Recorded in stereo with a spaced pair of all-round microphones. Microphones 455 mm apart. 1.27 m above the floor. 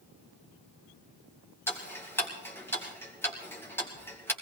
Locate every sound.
1.7 s ticking: 5° left (ahead or behind), 3 m